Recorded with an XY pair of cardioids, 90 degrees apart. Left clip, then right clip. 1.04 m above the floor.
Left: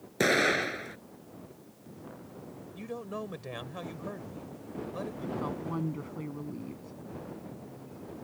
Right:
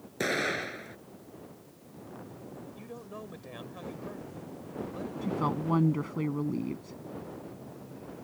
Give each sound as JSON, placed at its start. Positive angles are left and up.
{"t": 0.2, "sound": "an explosion", "azimuth_deg": 45}
{"t": 2.8, "sound": "a man speaking", "azimuth_deg": 50}
{"t": 5.2, "sound": "a woman speaking", "azimuth_deg": -55}